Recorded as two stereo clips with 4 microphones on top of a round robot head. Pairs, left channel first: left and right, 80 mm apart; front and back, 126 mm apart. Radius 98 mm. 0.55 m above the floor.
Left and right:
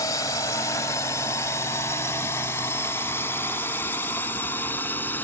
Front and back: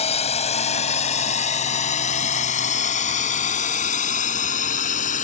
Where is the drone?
35° left; by 5.2 s 15° left.